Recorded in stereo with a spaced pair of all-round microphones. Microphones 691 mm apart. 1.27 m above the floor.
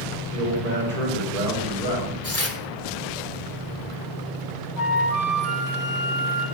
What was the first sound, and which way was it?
A man speaking, 75° right (ahead or behind).